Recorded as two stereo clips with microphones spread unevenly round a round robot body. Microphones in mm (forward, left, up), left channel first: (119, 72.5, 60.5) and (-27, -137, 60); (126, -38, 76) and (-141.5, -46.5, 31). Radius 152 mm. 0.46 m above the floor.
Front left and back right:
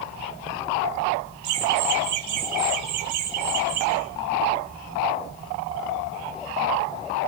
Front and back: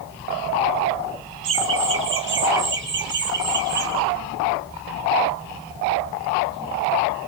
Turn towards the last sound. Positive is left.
turn(degrees=-125)